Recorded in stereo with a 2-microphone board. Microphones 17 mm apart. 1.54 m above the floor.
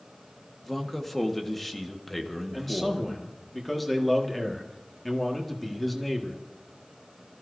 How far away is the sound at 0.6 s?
About 1.6 m.